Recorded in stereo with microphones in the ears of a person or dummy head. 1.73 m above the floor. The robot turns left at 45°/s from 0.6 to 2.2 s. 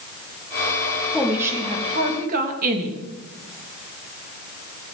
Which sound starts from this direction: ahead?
A woman speaking, at 1.1 s.